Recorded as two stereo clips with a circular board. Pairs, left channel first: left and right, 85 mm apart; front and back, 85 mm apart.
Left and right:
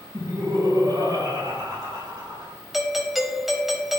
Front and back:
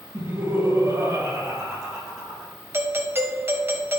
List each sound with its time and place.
0.1 s laughter: 120° right, 4.5 m; by 2.5 s 90° right, 3 m
2.7 s a doorbell: 175° right, 1.5 m